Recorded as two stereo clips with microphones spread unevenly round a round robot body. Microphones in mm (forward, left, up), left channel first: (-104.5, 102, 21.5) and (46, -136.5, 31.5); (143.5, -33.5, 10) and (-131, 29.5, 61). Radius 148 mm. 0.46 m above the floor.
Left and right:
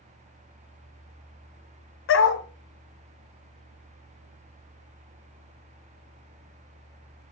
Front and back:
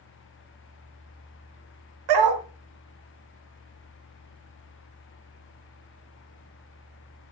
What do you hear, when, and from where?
2.1 s a dog barking: 165° left, 1.6 m